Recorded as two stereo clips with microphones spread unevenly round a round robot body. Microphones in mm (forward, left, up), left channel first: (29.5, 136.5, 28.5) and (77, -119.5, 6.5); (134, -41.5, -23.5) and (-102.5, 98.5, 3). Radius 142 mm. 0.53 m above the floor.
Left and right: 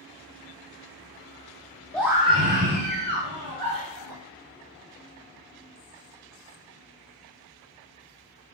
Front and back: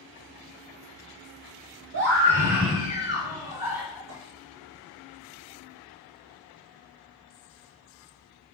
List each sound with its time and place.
1.9 s a scream: 170° right, 0.8 m; by 4.0 s 125° right, 3.5 m
4.1 s a clink: 170° right, 4.5 m